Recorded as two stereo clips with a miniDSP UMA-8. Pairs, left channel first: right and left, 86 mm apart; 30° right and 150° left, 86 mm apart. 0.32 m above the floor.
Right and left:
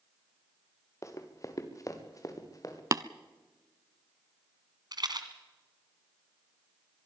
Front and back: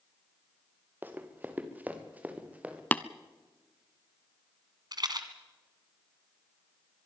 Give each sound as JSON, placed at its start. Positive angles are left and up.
{"t": 1.0, "sound": "running footsteps", "azimuth_deg": -140, "distance_m": 2.5}
{"t": 2.9, "sound": "tapping", "azimuth_deg": 40, "distance_m": 0.6}
{"t": 4.9, "sound": "a rattle", "azimuth_deg": 120, "distance_m": 1.8}